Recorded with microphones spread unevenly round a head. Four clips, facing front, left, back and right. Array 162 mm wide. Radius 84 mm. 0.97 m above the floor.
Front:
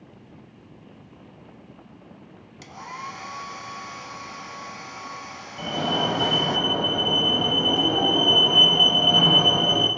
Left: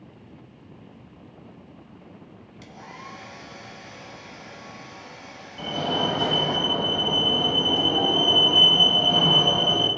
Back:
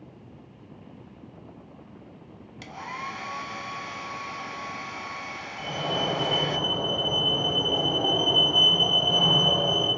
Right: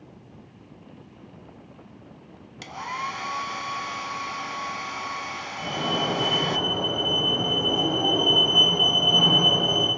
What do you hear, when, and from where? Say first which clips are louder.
2.6 s a hair dryer: right 11 dB, even; 100° right, 1.2 m
5.6 s a fire alarm: left 2 dB, front 4 dB; 20° left, 9 m